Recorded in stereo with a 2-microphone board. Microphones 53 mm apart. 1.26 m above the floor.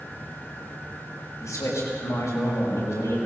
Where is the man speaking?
85° left, 5.5 m.